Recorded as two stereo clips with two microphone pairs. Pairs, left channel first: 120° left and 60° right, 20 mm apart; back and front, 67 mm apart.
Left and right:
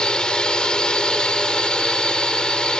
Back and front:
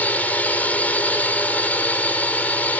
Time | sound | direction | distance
0.0 | a drone | 125° left | ?